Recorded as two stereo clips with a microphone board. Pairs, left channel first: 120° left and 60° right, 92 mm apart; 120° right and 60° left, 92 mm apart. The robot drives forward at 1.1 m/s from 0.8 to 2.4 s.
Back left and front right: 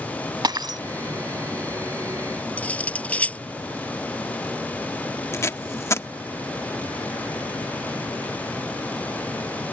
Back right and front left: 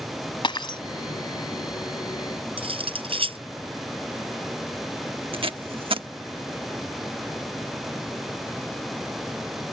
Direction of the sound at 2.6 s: 45° left.